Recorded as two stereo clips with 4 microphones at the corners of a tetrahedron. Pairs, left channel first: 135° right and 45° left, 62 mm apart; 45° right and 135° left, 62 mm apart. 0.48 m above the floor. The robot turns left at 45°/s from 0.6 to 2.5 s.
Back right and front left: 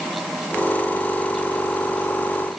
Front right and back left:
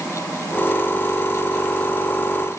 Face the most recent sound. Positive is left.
No sound to turn to.